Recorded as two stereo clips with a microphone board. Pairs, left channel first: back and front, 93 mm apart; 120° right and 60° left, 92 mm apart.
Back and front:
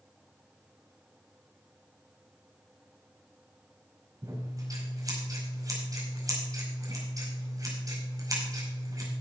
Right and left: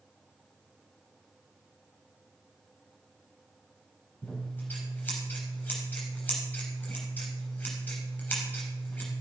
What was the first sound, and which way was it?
Scissors, 50° right.